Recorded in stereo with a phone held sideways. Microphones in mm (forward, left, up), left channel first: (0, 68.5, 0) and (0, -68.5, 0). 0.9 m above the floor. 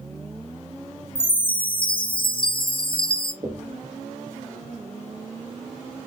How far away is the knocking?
About 1.3 m.